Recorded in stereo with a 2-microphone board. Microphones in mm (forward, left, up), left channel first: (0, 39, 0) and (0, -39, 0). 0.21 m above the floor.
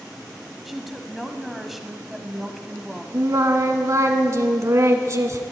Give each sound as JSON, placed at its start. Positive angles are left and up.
{"t": 0.7, "sound": "a woman speaking", "side_deg": 0, "distance_m": 1.1}
{"t": 3.1, "sound": "singing", "side_deg": -45, "distance_m": 1.3}